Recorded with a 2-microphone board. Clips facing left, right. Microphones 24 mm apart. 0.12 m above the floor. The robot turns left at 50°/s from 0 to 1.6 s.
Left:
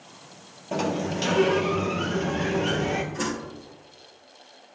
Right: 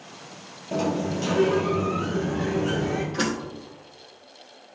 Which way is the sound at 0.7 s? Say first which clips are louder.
Right 1 dB; 155° left.